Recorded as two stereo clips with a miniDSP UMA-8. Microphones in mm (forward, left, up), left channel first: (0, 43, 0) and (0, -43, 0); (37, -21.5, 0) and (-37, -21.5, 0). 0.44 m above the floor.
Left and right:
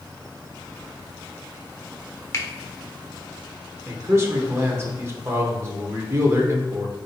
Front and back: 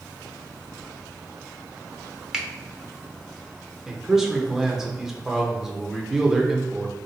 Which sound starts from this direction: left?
A finger snap, at 2.3 s.